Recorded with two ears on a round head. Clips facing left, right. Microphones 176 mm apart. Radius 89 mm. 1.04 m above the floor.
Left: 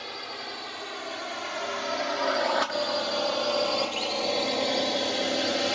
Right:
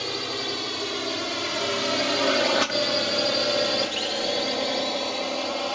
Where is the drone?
55° right (ahead or behind); by 5.8 s 20° left (ahead or behind).